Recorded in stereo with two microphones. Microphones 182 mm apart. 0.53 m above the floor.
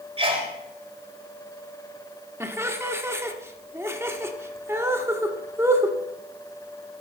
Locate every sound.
0.2 s a sneeze: 35° right (ahead or behind), 2.5 m
2.4 s laughter: 15° right (ahead or behind), 0.9 m